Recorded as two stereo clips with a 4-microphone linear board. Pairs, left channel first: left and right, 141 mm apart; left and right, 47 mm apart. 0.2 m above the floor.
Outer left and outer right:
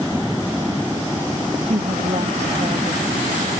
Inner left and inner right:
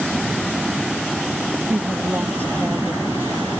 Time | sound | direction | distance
1.7 | a woman speaking | 50° right (ahead or behind) | ?